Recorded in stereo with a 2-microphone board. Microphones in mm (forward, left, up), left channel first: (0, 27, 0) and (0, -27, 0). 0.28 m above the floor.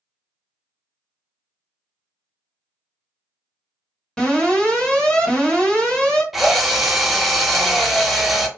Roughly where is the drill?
Centre.